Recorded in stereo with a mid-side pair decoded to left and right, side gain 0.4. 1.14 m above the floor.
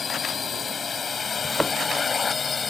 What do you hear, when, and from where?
0.0 s a drone: 45° left; by 2.7 s 40° left
1.4 s a thud: straight ahead